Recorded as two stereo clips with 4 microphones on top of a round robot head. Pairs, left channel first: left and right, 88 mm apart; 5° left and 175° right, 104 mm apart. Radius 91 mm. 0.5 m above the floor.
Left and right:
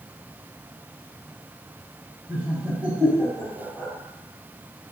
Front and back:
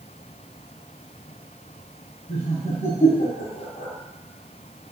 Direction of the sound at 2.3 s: 15° right.